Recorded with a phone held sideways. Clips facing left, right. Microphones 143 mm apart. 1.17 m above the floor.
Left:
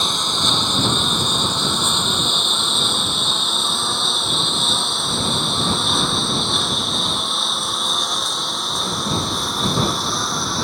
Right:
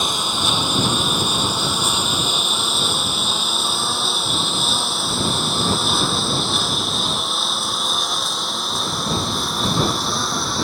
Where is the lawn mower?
10° right (ahead or behind); by 10.6 s centre (ahead or behind).